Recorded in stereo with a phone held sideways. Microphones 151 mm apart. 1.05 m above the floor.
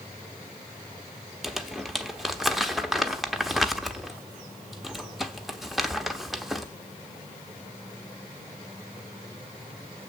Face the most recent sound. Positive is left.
turn(degrees=0)  # may be behind; listen again after turning